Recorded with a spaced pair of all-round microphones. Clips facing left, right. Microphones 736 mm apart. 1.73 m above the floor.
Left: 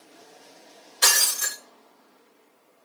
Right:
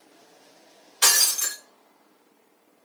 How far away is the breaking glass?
About 1.1 m.